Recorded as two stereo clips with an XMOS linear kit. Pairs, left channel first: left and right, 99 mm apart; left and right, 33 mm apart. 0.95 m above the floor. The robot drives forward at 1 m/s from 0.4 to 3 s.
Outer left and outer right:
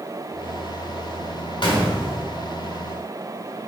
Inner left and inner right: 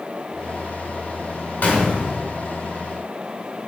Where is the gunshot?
50° left (ahead or behind), 1.9 m; by 2.2 s 40° left (ahead or behind), 2.5 m.